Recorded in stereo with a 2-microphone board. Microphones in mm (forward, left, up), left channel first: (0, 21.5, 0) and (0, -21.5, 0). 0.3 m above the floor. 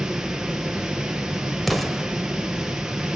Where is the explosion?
Centre (ahead or behind), 1.3 m.